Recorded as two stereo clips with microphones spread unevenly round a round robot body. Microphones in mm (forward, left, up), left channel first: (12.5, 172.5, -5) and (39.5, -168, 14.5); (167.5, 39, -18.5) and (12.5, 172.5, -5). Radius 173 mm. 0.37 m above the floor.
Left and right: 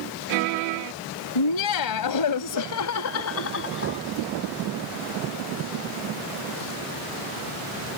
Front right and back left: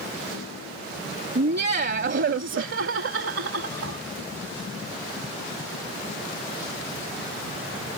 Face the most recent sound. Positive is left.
turn(degrees=150)